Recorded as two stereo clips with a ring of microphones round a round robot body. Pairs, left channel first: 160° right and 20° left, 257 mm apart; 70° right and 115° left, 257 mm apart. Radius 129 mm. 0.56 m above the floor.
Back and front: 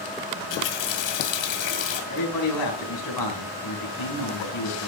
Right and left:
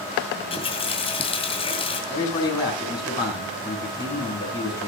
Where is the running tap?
140° right, 2.5 m.